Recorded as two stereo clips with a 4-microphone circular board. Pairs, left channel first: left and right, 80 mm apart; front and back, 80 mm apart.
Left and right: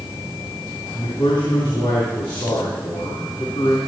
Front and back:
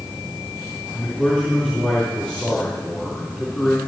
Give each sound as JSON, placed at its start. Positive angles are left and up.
{"t": 0.9, "sound": "a man speaking", "azimuth_deg": 70, "distance_m": 3.5}